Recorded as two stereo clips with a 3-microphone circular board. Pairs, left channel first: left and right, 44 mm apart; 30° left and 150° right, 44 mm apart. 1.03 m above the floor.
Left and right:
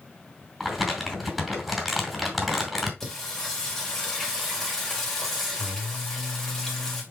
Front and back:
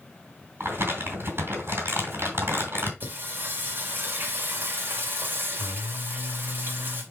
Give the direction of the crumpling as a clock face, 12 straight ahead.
6 o'clock.